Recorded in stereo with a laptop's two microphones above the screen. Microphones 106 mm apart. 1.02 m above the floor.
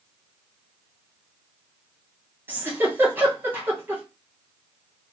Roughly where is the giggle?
Centre.